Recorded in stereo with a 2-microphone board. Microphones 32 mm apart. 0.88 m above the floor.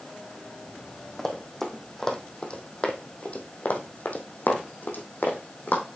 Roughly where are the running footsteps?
Centre.